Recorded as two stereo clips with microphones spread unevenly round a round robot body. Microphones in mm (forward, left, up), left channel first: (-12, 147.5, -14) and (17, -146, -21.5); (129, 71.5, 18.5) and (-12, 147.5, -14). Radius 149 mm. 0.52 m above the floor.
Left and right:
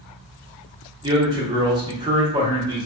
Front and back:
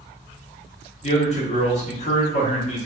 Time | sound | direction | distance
1.0 | a man speaking | 25° right | 0.7 m